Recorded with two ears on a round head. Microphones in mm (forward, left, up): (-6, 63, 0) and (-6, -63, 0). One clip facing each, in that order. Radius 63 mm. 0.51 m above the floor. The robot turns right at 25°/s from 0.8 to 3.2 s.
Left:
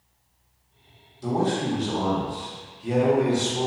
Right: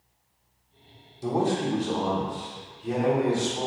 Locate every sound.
1.2 s a man speaking: 25° right, 0.9 m; by 3.7 s 25° left, 0.9 m